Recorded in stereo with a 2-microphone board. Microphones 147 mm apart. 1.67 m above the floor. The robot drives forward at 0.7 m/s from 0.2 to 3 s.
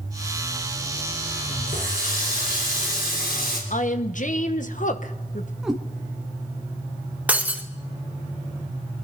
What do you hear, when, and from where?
1.7 s a running tap: 70° left (ahead or behind), 3.5 m; by 3.6 s 75° left (ahead or behind), 3 m
3.7 s a woman speaking: 60° left (ahead or behind), 1.0 m
5.6 s a cat meowing: 5° right (ahead or behind), 1.7 m
7.3 s breaking glass: 10° right (ahead or behind), 1.2 m